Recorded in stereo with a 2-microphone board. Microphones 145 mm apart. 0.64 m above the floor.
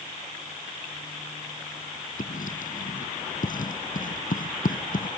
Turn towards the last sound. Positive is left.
turn(degrees=75)  # may be behind; listen again after turning